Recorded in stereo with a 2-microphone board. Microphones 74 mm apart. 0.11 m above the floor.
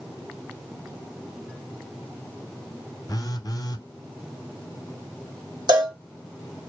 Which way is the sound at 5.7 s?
75° right (ahead or behind).